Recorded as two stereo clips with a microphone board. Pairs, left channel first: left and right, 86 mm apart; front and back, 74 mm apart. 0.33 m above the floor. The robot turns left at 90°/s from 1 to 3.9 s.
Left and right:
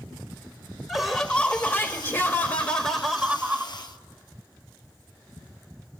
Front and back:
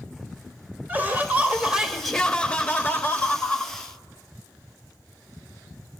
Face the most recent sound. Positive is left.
turn(degrees=-75)